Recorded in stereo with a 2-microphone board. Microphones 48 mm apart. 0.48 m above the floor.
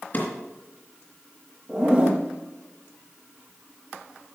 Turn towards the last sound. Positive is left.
turn(degrees=-15)  # may be behind; listen again after turning